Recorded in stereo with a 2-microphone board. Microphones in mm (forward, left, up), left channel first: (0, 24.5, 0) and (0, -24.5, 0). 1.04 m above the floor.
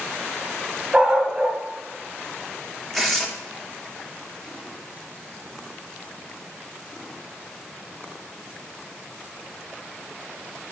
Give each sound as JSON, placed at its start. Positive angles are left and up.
{"t": 0.9, "sound": "a dog barking", "side_deg": -15, "distance_m": 1.5}
{"t": 2.9, "sound": "tearing paper", "side_deg": 5, "distance_m": 1.2}